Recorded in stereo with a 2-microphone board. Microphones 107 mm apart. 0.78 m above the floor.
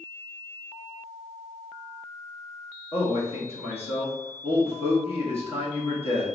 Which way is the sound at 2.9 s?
60° left (ahead or behind).